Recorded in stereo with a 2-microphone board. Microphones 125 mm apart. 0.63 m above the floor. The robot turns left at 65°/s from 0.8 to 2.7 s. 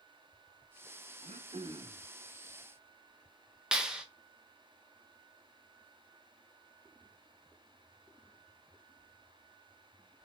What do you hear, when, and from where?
1.2 s throat clearing: 110° right, 0.5 m; by 2.0 s 165° right, 0.5 m
3.7 s a clap: 5° right (ahead or behind), 0.5 m